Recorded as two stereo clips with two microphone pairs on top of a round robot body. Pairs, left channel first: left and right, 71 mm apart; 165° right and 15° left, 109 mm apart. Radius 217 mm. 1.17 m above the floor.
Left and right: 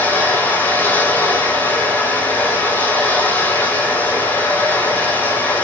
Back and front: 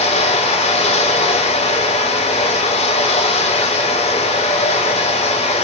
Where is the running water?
155° left, 3 m.